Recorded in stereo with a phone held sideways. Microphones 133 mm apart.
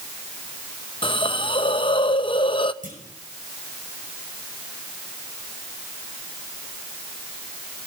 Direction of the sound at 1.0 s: 35° left (ahead or behind).